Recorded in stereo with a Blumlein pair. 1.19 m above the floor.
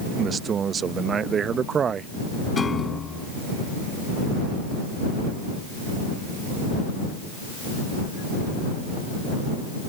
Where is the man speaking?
20° right.